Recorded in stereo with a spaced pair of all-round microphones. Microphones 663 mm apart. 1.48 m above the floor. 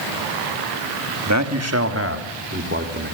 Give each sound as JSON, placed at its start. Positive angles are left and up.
{"t": 1.3, "sound": "a man speaking", "side_deg": -25, "distance_m": 2.5}